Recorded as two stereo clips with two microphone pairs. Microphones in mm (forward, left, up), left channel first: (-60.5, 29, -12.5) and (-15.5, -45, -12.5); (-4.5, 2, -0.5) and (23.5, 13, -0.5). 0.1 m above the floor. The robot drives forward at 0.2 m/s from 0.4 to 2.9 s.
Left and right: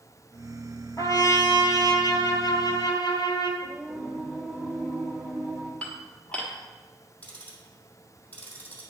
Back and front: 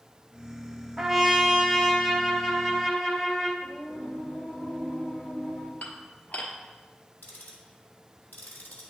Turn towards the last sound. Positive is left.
turn(degrees=-165)